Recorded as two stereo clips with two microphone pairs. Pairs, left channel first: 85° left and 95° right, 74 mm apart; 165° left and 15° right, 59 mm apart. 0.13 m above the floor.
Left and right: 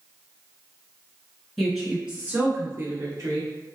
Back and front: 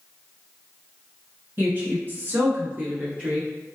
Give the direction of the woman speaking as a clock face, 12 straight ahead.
12 o'clock.